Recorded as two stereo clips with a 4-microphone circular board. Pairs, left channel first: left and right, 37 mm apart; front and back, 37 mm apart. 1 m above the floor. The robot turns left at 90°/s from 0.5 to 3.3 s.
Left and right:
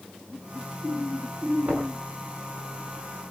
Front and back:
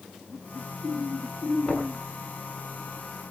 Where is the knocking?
60° right, 8 m; by 2.0 s 90° right, 8 m.